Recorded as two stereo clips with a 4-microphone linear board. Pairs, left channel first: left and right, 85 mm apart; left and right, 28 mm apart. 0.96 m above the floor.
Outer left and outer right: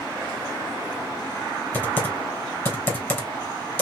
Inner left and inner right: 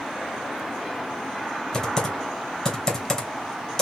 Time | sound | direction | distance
1.7 | typing on a keyboard | 25° left (ahead or behind) | 2.5 m